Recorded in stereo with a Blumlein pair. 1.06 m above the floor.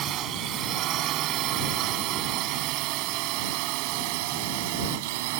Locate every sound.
0.0 s a drone: 30° right; by 5.4 s 50° right